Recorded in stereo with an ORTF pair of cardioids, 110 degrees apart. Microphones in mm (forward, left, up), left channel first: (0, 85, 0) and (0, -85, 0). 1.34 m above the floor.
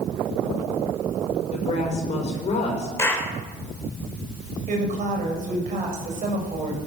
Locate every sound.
1.5 s a woman speaking: 45° left, 5 m
3.0 s a clap: 15° left, 4 m
4.7 s a woman speaking: 50° right, 6 m